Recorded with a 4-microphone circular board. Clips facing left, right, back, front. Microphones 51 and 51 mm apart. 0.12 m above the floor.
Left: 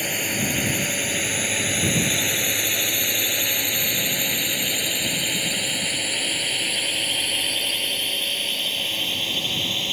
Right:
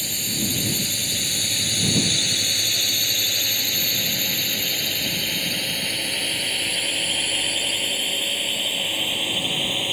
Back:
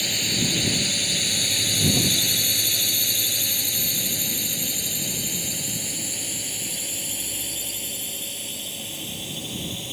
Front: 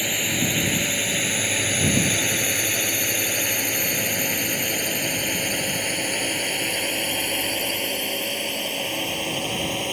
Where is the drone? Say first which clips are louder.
Left 4 dB, front 2 dB; 60° left; by 9.9 s 15° right.